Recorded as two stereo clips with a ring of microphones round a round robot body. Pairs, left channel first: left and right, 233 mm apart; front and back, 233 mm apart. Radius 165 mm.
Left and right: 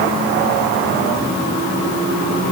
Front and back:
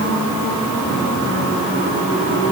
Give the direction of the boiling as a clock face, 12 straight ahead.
I don't hear boiling.